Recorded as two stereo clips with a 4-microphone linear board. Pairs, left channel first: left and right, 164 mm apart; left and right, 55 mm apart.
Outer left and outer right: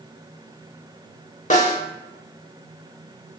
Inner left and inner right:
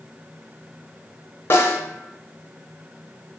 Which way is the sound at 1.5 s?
50° left (ahead or behind).